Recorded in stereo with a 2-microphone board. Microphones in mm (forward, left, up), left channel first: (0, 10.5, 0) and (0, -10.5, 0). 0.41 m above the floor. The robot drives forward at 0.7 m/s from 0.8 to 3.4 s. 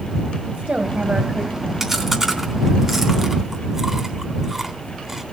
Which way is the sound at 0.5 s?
65° right (ahead or behind).